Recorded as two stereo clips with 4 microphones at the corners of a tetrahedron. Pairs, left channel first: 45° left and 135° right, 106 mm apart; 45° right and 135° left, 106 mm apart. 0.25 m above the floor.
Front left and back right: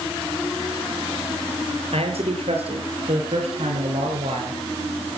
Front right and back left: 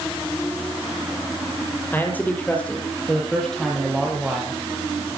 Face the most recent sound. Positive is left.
turn(degrees=-140)